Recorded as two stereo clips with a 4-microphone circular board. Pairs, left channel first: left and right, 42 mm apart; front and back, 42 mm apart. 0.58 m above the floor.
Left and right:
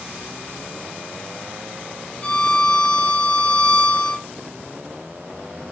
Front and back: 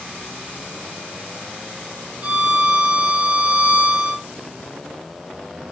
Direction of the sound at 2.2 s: 150° left.